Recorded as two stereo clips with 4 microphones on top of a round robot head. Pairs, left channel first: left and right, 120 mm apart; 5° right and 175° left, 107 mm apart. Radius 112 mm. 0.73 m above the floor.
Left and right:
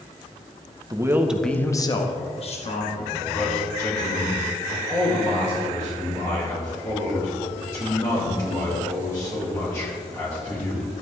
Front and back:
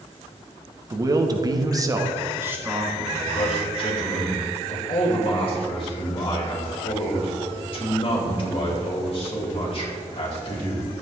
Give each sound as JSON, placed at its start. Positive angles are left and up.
{"t": 0.9, "sound": "a man speaking", "azimuth_deg": -140, "distance_m": 1.4}
{"t": 3.3, "sound": "a man speaking", "azimuth_deg": 25, "distance_m": 3.5}